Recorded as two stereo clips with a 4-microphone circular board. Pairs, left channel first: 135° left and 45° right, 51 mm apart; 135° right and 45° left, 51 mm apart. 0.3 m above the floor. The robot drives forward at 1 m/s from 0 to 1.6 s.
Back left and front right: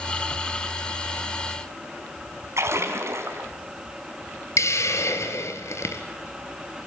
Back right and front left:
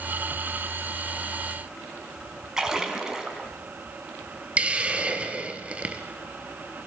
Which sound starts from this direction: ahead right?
A splash, at 2.6 s.